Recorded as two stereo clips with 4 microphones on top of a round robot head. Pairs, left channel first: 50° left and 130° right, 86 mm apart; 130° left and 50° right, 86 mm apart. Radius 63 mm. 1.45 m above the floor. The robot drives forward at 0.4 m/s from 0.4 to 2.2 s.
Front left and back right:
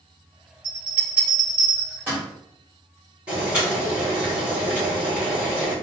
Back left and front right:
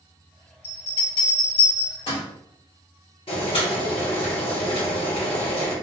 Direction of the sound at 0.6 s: 150° left.